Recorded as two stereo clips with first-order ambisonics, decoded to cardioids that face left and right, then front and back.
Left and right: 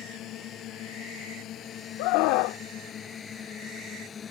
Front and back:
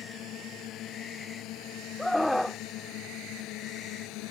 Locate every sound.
0.0 s a drone: 45° left; by 4.3 s 25° left
2.0 s a scream: 85° left